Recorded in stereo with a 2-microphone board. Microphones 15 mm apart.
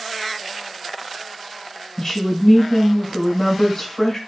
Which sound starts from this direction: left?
A woman speaking, at 2.0 s.